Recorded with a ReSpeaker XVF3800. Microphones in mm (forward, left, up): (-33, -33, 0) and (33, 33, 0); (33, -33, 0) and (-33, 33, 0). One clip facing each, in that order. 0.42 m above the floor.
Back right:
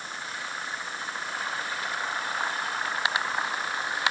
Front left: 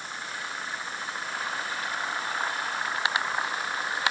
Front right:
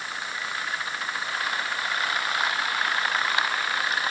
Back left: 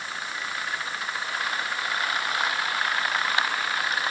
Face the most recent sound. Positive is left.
No sound to turn to.